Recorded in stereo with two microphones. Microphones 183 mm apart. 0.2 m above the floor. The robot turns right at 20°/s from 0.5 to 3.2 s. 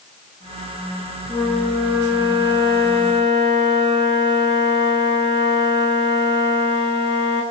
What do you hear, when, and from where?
1.3 s a flute: 170° left, 6.5 m; by 7.4 s 150° right, 6.5 m